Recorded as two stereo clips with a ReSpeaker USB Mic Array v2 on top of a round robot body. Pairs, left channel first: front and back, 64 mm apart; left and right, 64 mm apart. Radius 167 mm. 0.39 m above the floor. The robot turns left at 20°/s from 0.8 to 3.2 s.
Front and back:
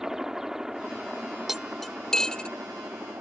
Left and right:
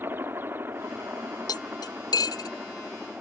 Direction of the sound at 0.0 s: 105° right.